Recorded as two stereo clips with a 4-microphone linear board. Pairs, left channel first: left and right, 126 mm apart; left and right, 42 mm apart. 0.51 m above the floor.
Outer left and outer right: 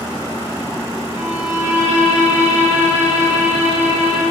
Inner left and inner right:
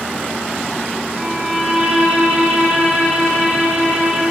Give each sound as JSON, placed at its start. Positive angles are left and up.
{"t": 1.1, "sound": "a violin", "side_deg": -25, "distance_m": 2.5}